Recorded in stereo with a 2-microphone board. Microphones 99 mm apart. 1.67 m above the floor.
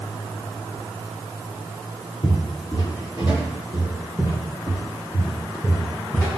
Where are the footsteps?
45° left (ahead or behind), 2.5 m; by 6.3 s 30° left (ahead or behind), 6.5 m.